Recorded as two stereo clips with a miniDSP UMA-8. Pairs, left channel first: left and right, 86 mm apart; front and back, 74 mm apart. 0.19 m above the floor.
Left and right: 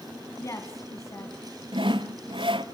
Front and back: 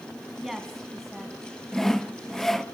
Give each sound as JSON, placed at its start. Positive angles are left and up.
{"t": 0.4, "sound": "a woman speaking", "azimuth_deg": 95, "distance_m": 1.8}
{"t": 1.7, "sound": "sawing", "azimuth_deg": -85, "distance_m": 0.7}